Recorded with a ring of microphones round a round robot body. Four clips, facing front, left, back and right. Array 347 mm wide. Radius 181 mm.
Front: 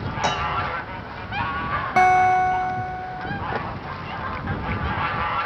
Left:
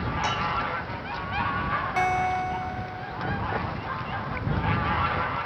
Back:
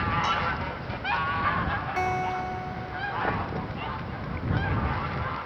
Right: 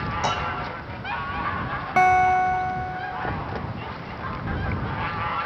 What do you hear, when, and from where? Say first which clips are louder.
0.2 s dishes clattering: even, front 4 dB; 20° right
2.0 s a guitar: right 9 dB, front 14 dB; 35° right